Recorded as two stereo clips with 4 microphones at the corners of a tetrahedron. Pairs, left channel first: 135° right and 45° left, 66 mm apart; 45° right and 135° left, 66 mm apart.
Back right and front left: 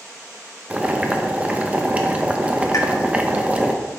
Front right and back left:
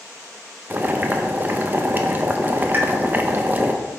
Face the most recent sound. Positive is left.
turn(degrees=-170)